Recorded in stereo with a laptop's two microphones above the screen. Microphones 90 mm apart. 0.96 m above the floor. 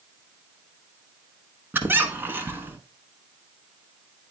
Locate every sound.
1.7 s a squeak: 20° right (ahead or behind), 0.9 m